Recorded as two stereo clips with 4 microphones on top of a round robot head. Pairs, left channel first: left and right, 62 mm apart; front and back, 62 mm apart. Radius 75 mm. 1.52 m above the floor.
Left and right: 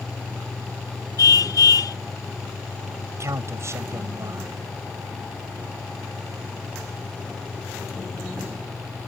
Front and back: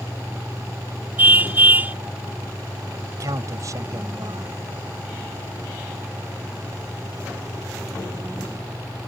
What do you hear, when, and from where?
1.2 s a car horn: 120° left
3.1 s a man speaking: 135° right